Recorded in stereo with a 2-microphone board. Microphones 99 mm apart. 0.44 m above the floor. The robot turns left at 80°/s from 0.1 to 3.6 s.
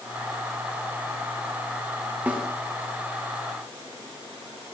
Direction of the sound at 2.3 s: 15° right (ahead or behind).